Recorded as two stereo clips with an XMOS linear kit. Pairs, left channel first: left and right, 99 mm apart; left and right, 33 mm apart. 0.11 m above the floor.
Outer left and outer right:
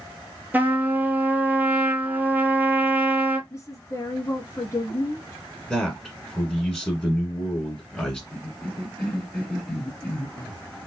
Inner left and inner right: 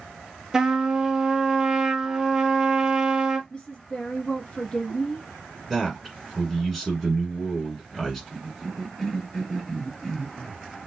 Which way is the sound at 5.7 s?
5° left (ahead or behind).